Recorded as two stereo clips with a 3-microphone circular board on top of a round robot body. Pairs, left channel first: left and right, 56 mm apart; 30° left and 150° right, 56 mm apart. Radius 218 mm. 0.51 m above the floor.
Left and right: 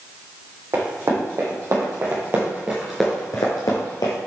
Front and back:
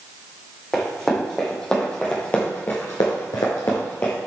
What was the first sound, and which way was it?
Running footsteps, 55° right.